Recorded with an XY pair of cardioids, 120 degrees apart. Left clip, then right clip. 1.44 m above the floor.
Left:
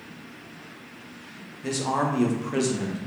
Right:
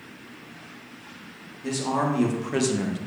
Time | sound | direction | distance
1.6 | a man speaking | 20° left | 0.9 m